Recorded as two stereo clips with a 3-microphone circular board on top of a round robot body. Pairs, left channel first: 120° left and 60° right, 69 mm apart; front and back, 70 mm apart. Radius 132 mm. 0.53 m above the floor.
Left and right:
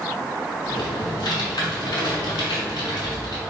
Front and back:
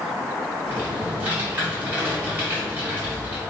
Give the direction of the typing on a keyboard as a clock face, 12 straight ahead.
8 o'clock.